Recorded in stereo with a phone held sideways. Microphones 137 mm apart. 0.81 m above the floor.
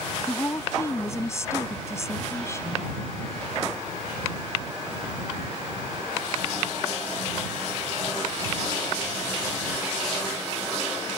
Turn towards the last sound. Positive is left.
turn(degrees=20)  # may be behind; listen again after turning